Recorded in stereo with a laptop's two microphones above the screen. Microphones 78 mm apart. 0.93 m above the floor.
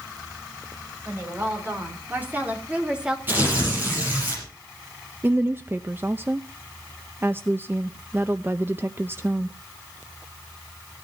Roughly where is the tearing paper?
Right.